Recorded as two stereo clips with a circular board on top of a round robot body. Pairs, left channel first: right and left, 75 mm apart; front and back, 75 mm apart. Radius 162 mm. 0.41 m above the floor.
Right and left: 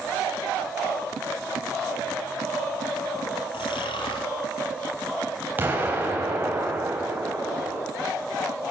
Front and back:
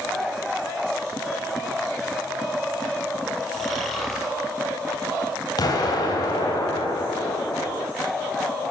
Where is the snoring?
90° right, 2.0 m.